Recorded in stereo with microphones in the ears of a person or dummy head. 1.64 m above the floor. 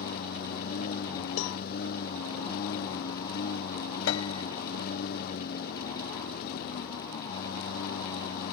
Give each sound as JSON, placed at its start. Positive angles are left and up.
{"t": 0.0, "sound": "a lawn mower", "side_deg": 55}
{"t": 1.4, "sound": "a cowbell", "side_deg": 85}
{"t": 4.1, "sound": "a piano", "side_deg": 75}